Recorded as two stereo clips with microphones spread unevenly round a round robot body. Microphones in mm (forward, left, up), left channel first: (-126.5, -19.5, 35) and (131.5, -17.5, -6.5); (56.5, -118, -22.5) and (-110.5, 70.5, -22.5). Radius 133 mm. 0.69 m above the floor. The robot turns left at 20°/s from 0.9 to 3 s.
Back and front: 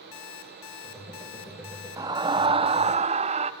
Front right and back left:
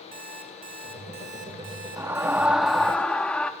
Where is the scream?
55° left, 0.7 m; by 3.5 s 35° left, 0.7 m.